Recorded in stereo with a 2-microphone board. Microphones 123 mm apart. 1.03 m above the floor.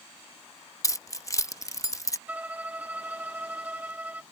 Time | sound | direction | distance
0.8 | keys jangling | 25° left (ahead or behind) | ?
2.3 | a violin | 15° right (ahead or behind) | ?